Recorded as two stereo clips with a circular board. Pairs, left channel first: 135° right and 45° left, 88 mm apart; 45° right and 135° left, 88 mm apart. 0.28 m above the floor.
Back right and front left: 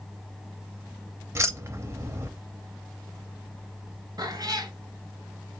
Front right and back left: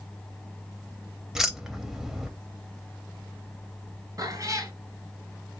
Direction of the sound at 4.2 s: 85° left.